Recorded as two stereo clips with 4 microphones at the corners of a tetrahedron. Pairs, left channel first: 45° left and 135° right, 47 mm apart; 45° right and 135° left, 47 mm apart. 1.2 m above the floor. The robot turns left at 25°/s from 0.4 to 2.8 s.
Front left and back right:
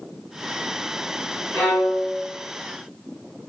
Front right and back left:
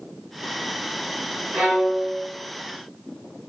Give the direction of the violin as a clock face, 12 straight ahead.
10 o'clock.